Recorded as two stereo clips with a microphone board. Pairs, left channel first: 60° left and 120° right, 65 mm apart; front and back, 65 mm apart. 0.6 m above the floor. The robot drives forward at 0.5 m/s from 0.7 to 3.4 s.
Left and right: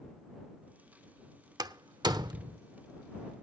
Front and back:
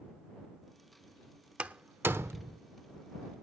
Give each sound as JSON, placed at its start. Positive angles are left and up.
{"t": 1.6, "sound": "a door slam", "azimuth_deg": -105, "distance_m": 0.9}